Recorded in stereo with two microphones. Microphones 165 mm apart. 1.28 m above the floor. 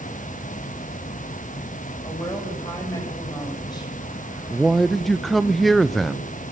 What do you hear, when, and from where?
2.0 s a woman speaking: 25° left (ahead or behind), 8 m
4.5 s a man speaking: centre (ahead or behind), 0.6 m